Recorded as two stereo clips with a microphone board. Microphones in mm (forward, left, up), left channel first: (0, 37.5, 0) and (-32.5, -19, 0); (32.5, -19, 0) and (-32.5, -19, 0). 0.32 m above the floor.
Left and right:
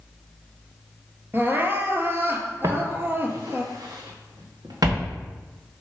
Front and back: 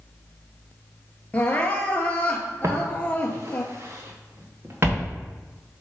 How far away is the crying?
About 1.1 m.